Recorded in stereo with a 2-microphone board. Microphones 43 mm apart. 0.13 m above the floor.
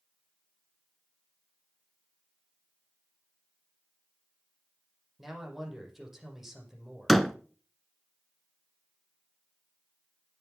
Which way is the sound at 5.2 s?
5° right (ahead or behind).